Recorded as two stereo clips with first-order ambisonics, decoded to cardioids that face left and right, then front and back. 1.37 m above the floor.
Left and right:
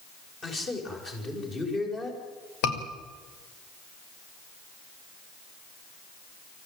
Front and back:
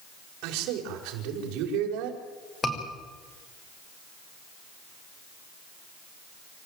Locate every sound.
0.4 s a man speaking: 155° left, 6 m
2.6 s a scream: 75° left, 6 m